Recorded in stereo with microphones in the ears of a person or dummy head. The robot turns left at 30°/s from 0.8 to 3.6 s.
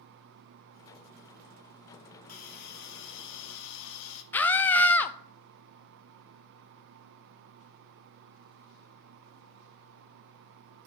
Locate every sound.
2.3 s a hiss: 135° left, 0.8 m; by 4.2 s 100° left, 0.8 m
4.3 s a scream: 20° left (ahead or behind), 0.5 m